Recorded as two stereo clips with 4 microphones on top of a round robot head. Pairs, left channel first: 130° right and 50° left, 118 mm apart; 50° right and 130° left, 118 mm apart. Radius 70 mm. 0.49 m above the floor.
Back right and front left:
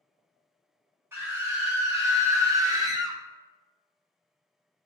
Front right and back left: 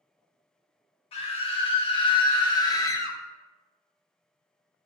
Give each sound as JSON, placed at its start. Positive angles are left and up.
{"t": 1.1, "sound": "a scream", "azimuth_deg": -15, "distance_m": 2.5}